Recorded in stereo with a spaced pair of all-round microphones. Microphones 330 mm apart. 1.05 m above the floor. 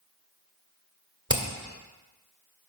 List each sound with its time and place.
1.3 s hammering: 35° left (ahead or behind), 1.7 m